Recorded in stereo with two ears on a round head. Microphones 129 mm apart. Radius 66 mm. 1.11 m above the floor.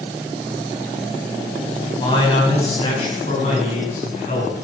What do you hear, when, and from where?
2.0 s a man speaking: 30° left (ahead or behind), 6 m; by 4.5 s 50° left (ahead or behind), 9 m